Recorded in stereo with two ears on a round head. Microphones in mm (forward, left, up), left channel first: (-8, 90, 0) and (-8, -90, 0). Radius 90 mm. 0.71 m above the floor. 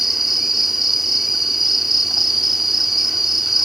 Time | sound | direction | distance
0.0 | an insect | centre (ahead or behind) | ?